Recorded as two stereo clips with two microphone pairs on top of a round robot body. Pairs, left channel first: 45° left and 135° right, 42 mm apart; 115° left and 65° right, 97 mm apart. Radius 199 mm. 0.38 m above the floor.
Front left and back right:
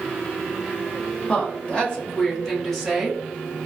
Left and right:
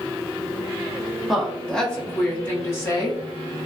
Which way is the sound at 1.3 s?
25° left.